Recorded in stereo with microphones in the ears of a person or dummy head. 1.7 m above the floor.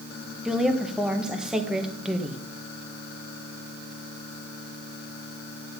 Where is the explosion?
No explosion in this recording.